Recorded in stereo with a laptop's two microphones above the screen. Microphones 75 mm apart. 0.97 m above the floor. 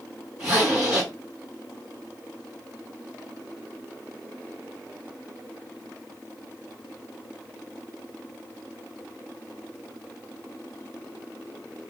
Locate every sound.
0.4 s a zipper: 10° right (ahead or behind), 2 m